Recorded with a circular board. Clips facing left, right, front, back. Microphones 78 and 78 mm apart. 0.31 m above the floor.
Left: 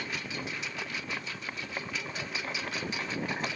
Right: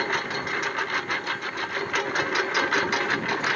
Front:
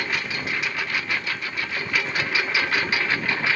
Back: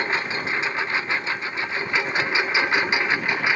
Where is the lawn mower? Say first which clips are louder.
Right 10 dB, back 3 dB; 120° right; by 3.6 s 110° right.